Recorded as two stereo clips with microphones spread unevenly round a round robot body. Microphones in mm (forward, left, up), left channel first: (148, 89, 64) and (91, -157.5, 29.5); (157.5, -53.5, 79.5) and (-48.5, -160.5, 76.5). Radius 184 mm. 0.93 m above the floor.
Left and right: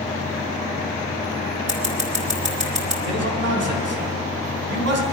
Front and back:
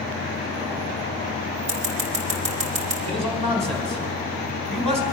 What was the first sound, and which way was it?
Scissors, 175° right.